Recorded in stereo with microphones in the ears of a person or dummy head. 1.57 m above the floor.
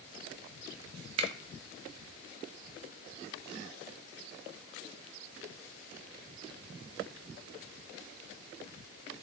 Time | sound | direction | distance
1.2 | a finger snap | 40° right (ahead or behind) | 0.6 m